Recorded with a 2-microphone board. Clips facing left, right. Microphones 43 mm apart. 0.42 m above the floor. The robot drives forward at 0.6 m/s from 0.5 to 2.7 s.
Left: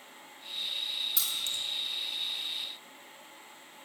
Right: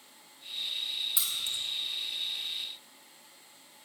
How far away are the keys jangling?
About 0.9 m.